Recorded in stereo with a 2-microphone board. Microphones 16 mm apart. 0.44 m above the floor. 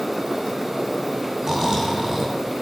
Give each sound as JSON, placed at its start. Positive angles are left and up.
{"t": 1.4, "sound": "snoring", "side_deg": -30, "distance_m": 3.0}